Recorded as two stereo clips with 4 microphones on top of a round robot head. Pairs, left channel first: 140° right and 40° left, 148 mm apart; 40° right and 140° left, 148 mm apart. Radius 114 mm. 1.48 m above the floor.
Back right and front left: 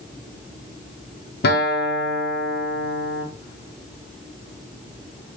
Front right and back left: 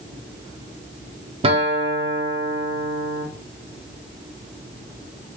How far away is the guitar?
About 0.6 m.